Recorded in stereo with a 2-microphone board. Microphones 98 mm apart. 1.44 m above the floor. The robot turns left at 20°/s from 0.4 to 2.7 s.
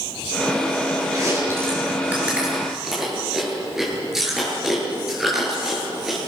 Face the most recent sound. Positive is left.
turn(degrees=-5)  # may be behind; listen again after turning